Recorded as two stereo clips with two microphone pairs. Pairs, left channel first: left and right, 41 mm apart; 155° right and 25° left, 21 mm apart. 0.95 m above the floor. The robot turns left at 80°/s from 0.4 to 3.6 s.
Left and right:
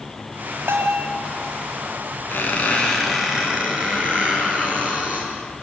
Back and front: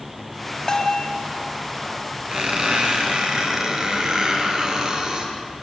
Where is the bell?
105° right, 3 m; by 1.1 s 135° right, 3 m.